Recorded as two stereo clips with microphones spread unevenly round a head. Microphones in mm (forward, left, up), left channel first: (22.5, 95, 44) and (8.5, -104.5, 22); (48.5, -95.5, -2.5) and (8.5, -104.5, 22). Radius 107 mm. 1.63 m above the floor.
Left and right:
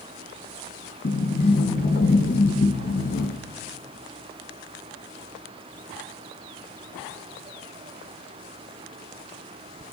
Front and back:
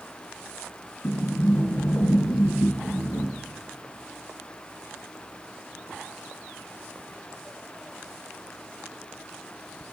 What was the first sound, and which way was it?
A sliding door, 55° left.